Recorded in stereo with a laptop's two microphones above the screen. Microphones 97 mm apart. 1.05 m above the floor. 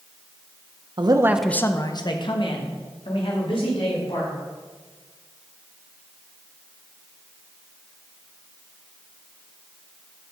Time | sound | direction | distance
1.0 | a man speaking | 50° right (ahead or behind) | 0.7 m